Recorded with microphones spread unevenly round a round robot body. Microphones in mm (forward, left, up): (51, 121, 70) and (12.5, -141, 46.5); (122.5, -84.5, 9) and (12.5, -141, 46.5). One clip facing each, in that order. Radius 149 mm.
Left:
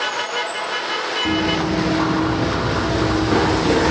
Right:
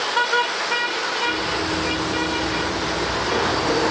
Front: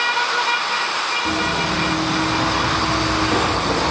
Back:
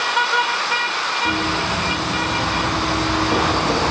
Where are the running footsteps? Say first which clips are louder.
Left 8 dB, front 1 dB; 110° left, 5 m; by 3.9 s 130° left, 3.5 m.